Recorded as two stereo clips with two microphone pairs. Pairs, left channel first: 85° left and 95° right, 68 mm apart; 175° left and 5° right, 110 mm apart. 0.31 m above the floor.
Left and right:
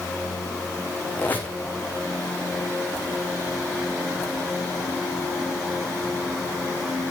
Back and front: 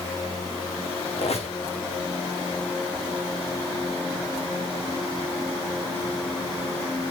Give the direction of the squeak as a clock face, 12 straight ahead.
7 o'clock.